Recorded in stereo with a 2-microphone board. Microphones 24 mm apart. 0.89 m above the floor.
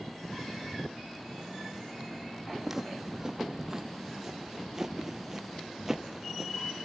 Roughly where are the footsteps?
Centre.